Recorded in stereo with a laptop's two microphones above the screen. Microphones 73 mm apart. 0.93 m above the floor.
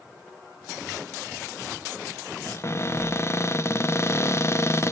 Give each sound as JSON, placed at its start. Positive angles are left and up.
{"t": 2.5, "sound": "a cupboard door", "side_deg": 40, "distance_m": 0.5}